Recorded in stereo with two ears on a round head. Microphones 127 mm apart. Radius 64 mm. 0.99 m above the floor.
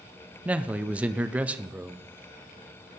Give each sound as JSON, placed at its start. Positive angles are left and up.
{"t": 0.5, "sound": "a man speaking", "side_deg": -10, "distance_m": 0.5}